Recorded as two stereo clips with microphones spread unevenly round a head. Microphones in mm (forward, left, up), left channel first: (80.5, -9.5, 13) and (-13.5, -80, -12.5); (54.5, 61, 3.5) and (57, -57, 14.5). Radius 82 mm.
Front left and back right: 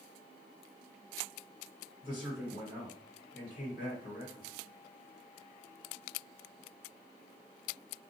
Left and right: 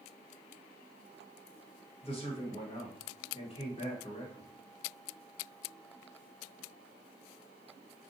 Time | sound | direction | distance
2.0 | a man speaking | 50° left | 1.2 m